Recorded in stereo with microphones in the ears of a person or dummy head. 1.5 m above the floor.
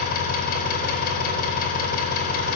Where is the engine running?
55° left (ahead or behind), 4.5 m.